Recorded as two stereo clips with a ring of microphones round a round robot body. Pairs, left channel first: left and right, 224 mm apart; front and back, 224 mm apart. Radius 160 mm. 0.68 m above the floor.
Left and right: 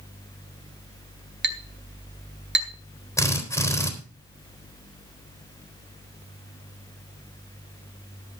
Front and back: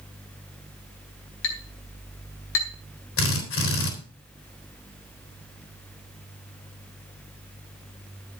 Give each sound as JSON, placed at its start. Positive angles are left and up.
{"t": 1.4, "sound": "a clink", "azimuth_deg": -50, "distance_m": 2.0}
{"t": 3.2, "sound": "a drill", "azimuth_deg": 15, "distance_m": 3.5}